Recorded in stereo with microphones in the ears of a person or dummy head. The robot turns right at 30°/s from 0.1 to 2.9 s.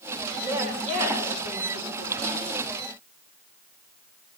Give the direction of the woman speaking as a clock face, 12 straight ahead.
6 o'clock.